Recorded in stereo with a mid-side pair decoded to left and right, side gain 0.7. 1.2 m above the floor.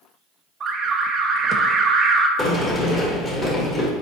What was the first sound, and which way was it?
An alarm, 35° right.